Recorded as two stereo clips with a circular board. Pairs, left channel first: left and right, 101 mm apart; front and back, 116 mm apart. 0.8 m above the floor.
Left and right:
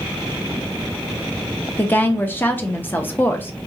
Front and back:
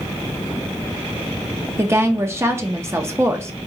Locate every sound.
1.8 s a woman speaking: 140° left, 0.5 m